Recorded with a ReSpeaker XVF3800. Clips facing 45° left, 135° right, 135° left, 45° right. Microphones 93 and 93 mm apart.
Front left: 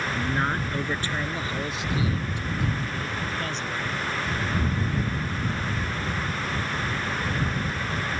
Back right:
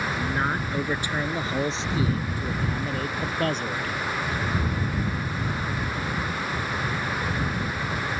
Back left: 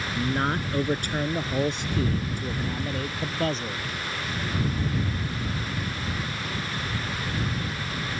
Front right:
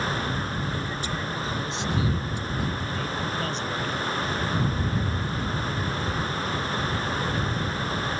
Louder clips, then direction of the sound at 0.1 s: Front left 2 dB, back left 3 dB; 130° left.